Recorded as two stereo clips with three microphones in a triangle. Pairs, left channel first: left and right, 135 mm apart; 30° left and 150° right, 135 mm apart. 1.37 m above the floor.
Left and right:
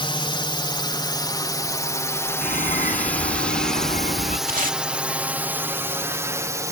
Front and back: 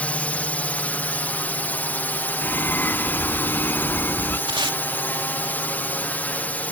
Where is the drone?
105° left; by 6.7 s 40° right.